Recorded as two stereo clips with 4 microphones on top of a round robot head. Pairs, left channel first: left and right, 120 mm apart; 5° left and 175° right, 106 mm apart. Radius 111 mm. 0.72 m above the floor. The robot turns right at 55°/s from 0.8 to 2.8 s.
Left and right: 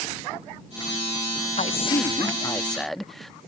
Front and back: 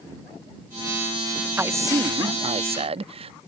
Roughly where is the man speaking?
Left.